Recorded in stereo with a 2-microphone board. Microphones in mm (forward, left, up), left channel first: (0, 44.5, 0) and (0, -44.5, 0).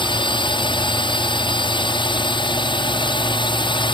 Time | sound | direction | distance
0.0 | a drone | 65° left (ahead or behind) | ?